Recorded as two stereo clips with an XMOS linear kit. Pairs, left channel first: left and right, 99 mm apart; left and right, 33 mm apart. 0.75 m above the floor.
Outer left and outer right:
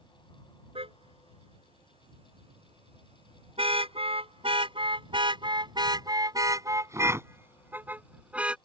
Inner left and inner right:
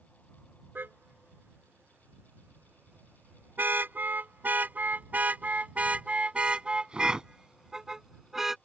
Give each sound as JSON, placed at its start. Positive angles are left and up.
{"t": 0.8, "sound": "a car horn", "side_deg": -75}